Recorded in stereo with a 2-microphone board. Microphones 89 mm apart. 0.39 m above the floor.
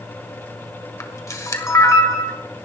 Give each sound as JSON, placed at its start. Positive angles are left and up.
{"t": 1.0, "sound": "a camera shutter", "side_deg": 35, "distance_m": 1.7}